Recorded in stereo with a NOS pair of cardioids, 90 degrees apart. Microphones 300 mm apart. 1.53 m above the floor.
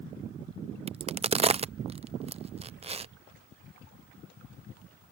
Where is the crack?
20° right.